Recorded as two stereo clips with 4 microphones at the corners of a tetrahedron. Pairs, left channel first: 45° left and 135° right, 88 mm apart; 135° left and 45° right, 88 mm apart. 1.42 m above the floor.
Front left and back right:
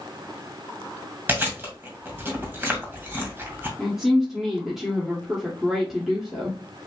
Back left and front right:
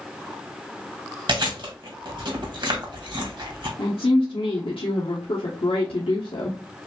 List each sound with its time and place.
1.3 s chewing: 70° right, 2 m
3.8 s a woman speaking: 140° left, 1.1 m